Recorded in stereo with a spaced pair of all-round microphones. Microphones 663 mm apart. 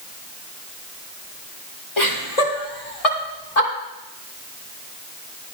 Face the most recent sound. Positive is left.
turn(degrees=70)  # may be behind; listen again after turning